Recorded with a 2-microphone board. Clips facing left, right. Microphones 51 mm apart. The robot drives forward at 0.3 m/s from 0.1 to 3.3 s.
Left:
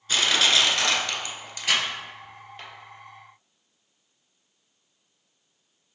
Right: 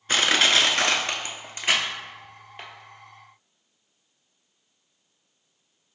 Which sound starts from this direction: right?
Crushing, at 0.1 s.